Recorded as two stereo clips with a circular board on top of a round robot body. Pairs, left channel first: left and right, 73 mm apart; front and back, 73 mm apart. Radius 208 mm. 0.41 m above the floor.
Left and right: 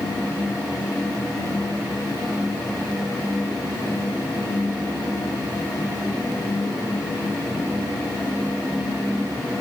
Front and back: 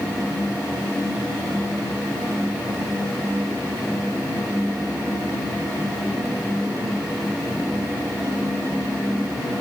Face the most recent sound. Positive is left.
No sound to turn to.